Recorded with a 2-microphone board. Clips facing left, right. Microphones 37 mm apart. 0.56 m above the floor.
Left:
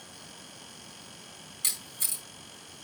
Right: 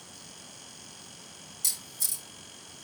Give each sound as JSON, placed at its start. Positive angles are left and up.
{"t": 1.6, "sound": "a camera shutter", "side_deg": 40, "distance_m": 3.5}